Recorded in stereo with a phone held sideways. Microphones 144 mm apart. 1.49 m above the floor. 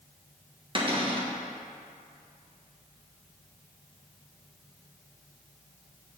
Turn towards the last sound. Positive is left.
turn(degrees=-35)  # may be behind; listen again after turning